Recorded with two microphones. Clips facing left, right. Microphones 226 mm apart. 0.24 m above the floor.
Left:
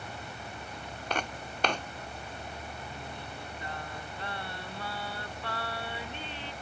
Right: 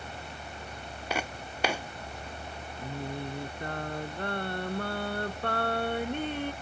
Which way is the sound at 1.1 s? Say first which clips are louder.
Right 1 dB; 10° right (ahead or behind).